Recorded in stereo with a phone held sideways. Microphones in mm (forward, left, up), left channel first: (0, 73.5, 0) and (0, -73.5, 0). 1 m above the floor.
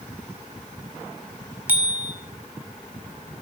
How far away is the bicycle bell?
About 2.5 m.